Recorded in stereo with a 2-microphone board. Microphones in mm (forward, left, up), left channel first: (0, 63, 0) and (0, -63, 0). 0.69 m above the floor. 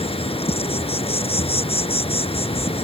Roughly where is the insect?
Left.